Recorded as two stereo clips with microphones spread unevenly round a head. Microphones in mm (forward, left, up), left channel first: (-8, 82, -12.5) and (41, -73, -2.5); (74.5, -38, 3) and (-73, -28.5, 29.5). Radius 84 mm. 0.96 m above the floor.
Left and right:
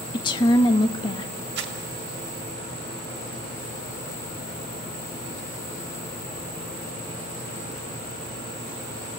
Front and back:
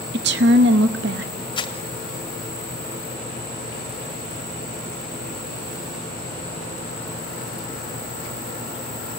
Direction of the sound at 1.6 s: 55° right.